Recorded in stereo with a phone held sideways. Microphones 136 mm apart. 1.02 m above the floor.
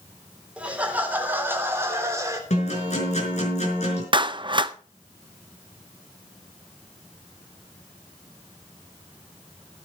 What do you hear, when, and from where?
0.6 s laughter: 10° right (ahead or behind), 3.5 m; by 2.4 s 25° right (ahead or behind), 3.5 m
2.5 s a guitar: 60° left (ahead or behind), 5 m
4.1 s a clap: 40° right (ahead or behind), 0.6 m